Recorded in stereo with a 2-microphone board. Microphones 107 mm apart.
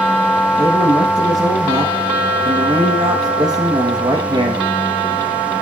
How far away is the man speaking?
About 5.5 m.